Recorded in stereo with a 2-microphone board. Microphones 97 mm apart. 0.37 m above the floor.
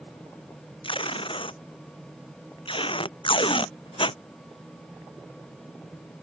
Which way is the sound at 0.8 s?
65° left (ahead or behind).